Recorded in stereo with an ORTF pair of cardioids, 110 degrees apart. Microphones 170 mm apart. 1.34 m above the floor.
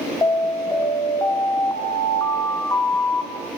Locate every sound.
0.2 s an alarm: 20° left, 4 m